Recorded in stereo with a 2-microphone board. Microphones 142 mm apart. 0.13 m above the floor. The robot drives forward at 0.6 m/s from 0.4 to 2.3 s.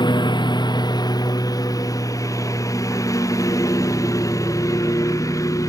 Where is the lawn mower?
30° left (ahead or behind); by 5.7 s 25° left (ahead or behind).